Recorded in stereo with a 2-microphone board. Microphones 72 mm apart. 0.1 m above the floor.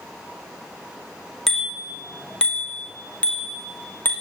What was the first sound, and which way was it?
A bicycle bell, 5° left (ahead or behind).